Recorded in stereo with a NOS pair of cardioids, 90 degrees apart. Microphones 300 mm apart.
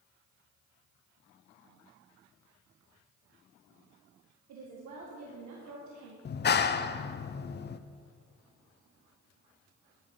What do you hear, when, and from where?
4.5 s a woman speaking: 70° right, 1.9 m
6.2 s a clap: 35° left, 0.7 m